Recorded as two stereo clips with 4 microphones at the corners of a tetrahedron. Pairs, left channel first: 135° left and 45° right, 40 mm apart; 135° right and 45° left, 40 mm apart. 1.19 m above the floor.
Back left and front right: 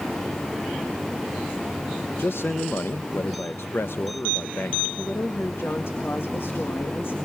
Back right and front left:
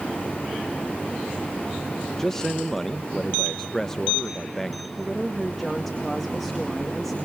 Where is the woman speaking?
140° left, 1.9 m.